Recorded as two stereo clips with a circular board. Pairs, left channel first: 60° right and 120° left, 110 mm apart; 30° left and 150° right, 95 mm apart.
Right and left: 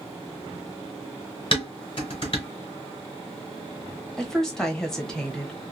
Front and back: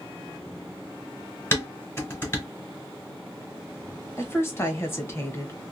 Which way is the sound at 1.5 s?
30° right.